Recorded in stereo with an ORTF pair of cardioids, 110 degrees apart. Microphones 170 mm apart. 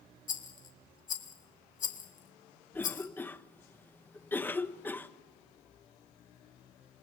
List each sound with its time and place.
0.3 s a rattle: 50° left, 2 m
2.7 s a cough: 10° left, 1.2 m